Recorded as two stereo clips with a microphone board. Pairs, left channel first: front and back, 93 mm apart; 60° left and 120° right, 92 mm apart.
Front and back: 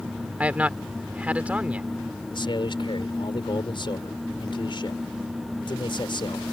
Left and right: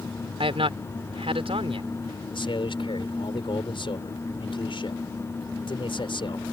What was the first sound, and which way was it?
A man speaking, 105° right.